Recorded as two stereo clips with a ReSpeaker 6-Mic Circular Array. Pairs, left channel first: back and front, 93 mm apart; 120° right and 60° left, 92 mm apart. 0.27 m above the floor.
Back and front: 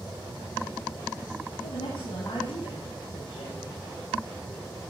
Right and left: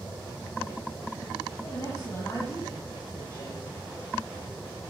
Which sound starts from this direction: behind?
A woman speaking, at 1.6 s.